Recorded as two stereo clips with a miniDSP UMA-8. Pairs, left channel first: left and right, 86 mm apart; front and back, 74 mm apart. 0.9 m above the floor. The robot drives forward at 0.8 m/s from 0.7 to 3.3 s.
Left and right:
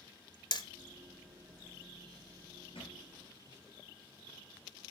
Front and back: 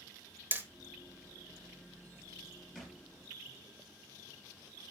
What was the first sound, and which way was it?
Hammering, 120° left.